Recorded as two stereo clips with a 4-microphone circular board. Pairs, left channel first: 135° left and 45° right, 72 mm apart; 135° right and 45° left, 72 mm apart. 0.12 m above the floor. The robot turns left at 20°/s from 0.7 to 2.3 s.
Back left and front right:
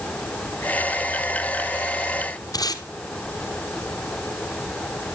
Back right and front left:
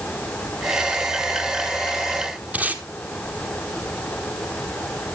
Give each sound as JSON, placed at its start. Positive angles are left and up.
{"t": 2.5, "sound": "tape being pulled", "azimuth_deg": 115, "distance_m": 1.4}